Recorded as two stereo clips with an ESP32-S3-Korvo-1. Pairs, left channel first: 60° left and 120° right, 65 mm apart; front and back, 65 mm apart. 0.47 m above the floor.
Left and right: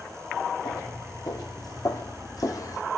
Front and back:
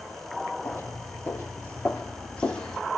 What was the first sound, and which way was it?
Footsteps, 55° left.